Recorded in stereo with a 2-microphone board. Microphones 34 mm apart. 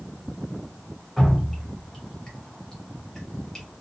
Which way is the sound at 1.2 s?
15° left (ahead or behind).